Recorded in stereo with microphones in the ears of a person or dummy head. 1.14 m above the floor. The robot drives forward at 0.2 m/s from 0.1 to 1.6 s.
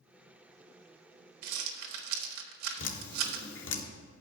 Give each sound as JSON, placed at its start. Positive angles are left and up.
{"t": 1.4, "sound": "a rattle", "side_deg": -80, "distance_m": 1.5}
{"t": 2.8, "sound": "dripping", "side_deg": 60, "distance_m": 1.2}